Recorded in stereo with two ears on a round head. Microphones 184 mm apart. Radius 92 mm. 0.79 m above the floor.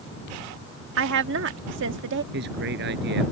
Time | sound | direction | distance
1.0 | a woman speaking | 60° right (ahead or behind) | ?
2.3 | a man speaking | 55° right (ahead or behind) | ?